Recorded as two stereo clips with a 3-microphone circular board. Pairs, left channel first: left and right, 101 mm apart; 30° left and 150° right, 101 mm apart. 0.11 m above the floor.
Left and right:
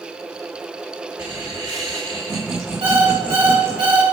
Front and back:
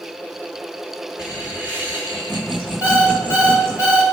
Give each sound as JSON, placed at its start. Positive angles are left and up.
{"t": 1.2, "sound": "laughter", "azimuth_deg": -70, "distance_m": 1.9}
{"t": 2.8, "sound": "an alarm clock", "azimuth_deg": -90, "distance_m": 4.0}